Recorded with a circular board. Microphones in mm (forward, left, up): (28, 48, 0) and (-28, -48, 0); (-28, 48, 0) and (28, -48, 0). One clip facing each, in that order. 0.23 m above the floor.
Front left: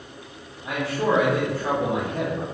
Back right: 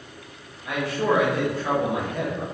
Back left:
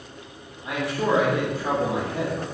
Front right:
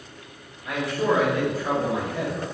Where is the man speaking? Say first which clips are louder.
Even, front right 1 dB; 75° left, 1.6 m.